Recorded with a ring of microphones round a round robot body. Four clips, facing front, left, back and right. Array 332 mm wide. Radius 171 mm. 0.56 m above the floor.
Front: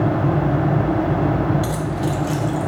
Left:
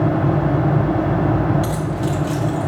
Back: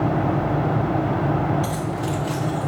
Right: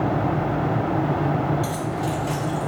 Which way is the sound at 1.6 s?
35° left.